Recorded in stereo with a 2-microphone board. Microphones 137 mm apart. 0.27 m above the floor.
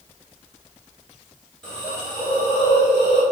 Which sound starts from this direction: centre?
A hiss, at 1.6 s.